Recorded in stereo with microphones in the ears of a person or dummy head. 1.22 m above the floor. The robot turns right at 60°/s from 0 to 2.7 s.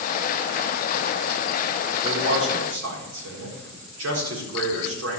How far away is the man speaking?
About 4 m.